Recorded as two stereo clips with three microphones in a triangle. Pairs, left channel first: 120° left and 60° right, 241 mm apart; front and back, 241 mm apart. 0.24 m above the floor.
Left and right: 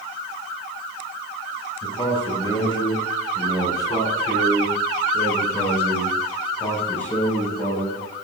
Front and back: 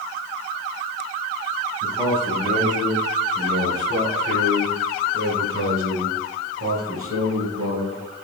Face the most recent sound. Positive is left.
turn(degrees=-155)